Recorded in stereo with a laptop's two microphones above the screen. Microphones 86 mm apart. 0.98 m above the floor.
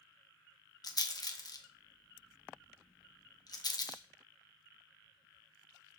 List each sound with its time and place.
0.8 s a rattle: 50° left (ahead or behind), 0.6 m